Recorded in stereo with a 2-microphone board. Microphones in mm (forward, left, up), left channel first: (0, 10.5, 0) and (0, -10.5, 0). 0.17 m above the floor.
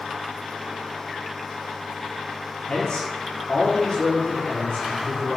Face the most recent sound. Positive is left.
turn(degrees=30)  # may be behind; listen again after turning